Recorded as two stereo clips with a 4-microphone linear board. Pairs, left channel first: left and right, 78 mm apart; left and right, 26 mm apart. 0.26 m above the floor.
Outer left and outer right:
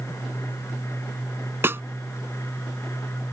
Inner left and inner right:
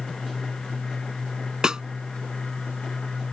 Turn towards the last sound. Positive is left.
turn(degrees=-30)  # may be behind; listen again after turning